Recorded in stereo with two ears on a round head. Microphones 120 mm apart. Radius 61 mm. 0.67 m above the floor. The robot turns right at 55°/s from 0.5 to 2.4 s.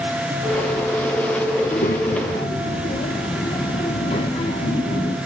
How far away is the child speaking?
About 0.9 m.